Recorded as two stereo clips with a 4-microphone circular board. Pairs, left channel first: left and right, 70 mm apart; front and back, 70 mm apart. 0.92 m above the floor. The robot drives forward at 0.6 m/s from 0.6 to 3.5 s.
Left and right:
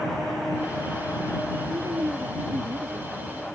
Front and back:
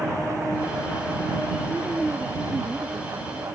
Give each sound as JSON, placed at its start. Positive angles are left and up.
{"t": 1.7, "sound": "a woman speaking", "azimuth_deg": -110}